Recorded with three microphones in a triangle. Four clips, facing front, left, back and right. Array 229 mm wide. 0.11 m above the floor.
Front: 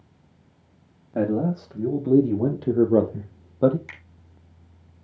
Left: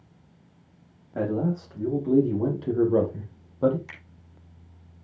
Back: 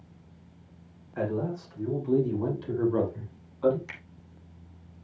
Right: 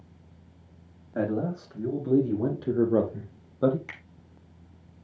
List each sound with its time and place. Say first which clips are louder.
1.1 s a man speaking: left 2 dB, front 7 dB; 5° right, 5.5 m; by 3.8 s 10° right, 3 m
3.9 s a finger snap: right 1 dB, even; 80° right, 6 m